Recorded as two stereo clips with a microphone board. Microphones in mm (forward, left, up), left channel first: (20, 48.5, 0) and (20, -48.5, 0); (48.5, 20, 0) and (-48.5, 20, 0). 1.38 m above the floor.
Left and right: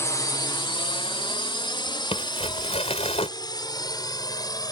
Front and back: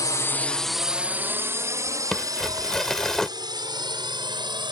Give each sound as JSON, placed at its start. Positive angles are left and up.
{"t": 0.0, "sound": "a drone", "azimuth_deg": 40}
{"t": 2.1, "sound": "crumpling", "azimuth_deg": 85}